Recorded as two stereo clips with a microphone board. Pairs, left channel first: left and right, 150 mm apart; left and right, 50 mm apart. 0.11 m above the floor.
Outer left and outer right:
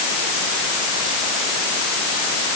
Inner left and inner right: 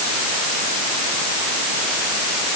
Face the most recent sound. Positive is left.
No sound to turn to.